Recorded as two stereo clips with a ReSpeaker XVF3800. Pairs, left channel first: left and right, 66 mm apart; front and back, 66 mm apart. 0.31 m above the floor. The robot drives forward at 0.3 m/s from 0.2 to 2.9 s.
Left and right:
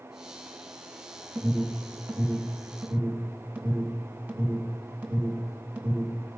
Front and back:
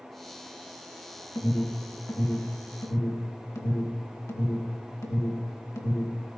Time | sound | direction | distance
1.4 | an alarm | 20° right | 3.5 m